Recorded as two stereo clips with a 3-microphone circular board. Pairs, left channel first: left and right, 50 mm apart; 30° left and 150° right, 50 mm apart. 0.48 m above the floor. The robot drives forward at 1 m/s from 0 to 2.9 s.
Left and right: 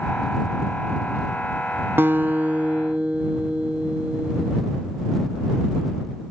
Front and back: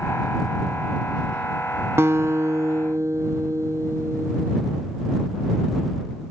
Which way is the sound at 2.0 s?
130° right.